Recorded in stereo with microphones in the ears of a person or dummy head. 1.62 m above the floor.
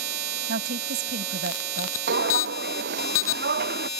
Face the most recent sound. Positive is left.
turn(degrees=-60)  # may be behind; listen again after turning